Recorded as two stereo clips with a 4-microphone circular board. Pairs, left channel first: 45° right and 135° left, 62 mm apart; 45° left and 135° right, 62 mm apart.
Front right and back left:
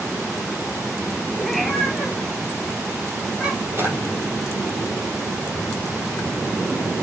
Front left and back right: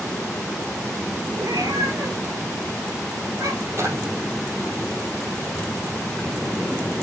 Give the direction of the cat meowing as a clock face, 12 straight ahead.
4 o'clock.